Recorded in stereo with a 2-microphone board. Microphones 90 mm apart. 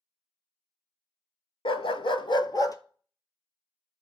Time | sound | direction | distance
1.6 | a dog barking | 70° left (ahead or behind) | 0.6 m